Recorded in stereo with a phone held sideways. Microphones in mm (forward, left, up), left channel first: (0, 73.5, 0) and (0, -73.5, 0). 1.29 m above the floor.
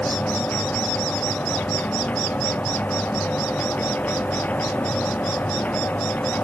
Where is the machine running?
10° left (ahead or behind).